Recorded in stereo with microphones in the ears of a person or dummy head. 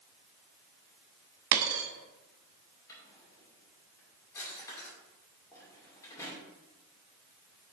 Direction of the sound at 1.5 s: 65° right (ahead or behind).